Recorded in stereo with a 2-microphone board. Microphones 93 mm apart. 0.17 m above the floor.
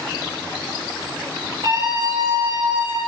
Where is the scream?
55° right (ahead or behind), 4 m; by 3.0 s 35° right (ahead or behind), 4 m.